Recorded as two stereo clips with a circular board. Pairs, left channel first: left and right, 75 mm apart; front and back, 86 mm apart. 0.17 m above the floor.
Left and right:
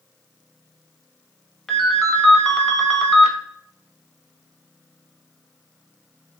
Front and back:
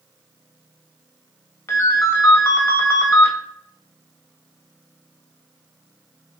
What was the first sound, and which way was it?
A ringtone, 10° left.